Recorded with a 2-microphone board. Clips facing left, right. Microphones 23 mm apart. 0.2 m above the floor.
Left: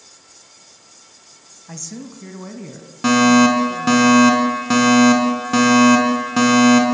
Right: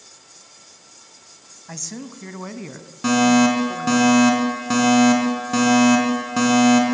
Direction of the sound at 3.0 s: 20° left (ahead or behind).